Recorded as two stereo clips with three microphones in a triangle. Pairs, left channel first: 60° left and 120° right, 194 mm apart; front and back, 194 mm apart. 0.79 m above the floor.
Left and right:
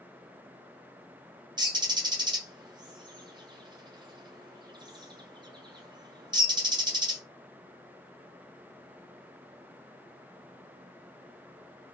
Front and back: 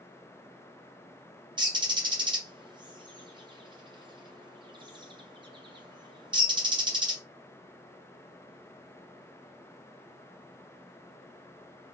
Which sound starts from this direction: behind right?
A bird, at 1.6 s.